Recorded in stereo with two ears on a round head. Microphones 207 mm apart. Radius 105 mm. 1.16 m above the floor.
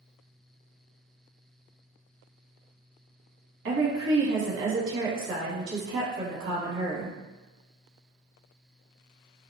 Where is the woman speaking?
55° right (ahead or behind), 0.9 m.